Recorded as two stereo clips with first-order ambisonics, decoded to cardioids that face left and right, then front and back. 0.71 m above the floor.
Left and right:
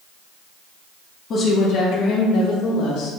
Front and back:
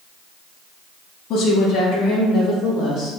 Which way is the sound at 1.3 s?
40° left.